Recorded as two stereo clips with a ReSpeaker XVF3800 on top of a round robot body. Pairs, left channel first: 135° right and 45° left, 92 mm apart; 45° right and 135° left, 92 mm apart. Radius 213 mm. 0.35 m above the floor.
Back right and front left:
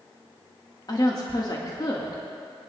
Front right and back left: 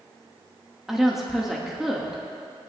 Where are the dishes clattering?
I don't hear dishes clattering.